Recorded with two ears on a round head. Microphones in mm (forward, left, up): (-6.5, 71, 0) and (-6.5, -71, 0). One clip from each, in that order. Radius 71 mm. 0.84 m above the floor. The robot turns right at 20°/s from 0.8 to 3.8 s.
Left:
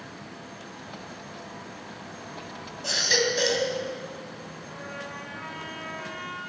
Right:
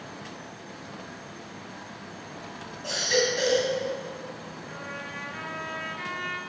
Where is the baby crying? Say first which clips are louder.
Left 2 dB; 40° left (ahead or behind), 3 m; by 3.7 s 25° left (ahead or behind), 3 m.